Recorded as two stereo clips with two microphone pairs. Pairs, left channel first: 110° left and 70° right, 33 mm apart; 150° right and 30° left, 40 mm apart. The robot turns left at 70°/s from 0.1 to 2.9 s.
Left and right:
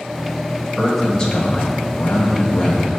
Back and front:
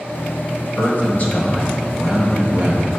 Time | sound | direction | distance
0.8 | a man speaking | 155° right | 1.4 m